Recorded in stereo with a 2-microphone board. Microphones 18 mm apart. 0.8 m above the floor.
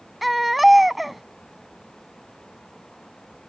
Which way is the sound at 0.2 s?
Centre (ahead or behind).